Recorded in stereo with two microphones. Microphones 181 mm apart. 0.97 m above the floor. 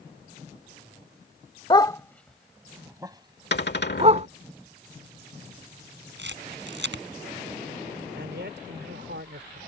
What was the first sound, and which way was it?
A dog barking, 25° left (ahead or behind).